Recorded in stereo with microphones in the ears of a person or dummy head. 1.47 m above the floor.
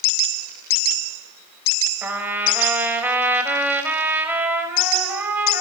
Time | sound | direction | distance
2.0 | a trumpet | 10° right (ahead or behind) | 5 m